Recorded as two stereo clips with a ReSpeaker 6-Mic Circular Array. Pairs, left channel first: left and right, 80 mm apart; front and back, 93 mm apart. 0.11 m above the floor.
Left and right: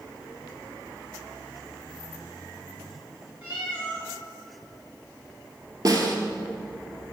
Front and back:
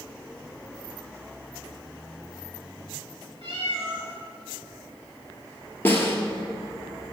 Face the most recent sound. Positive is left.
turn(degrees=-60)